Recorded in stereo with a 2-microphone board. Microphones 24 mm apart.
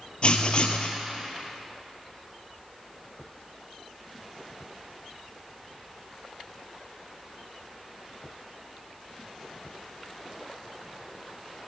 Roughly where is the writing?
Left.